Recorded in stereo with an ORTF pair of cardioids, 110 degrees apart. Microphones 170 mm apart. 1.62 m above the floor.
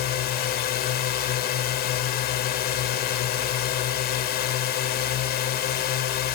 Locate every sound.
0.0 s a drone: 70° left